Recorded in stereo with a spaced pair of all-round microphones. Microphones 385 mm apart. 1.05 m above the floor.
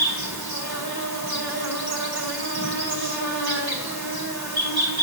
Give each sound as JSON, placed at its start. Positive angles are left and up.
{"t": 0.0, "sound": "an insect", "side_deg": -75, "distance_m": 1.8}